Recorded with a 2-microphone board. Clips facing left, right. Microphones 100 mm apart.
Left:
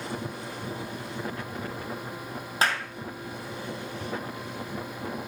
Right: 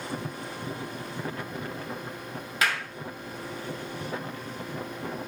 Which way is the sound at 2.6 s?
35° left (ahead or behind).